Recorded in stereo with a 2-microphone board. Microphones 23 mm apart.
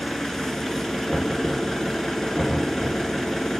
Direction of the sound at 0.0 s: 15° left (ahead or behind).